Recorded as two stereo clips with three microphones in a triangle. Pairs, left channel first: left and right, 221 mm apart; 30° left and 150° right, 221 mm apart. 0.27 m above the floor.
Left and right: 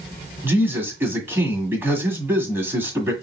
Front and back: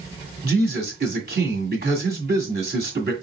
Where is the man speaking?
170° right, 1.8 m.